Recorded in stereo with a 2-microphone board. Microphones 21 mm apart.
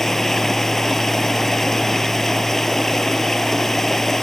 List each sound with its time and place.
0.0 s running water: 15° left (ahead or behind)